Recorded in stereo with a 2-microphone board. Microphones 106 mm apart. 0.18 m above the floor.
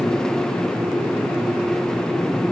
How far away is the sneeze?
I don't hear a sneeze.